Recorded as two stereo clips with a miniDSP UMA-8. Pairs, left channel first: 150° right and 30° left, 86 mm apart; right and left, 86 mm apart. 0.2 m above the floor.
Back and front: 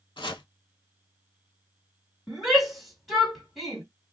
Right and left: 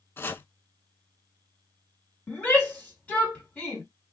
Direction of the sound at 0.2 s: 150° right.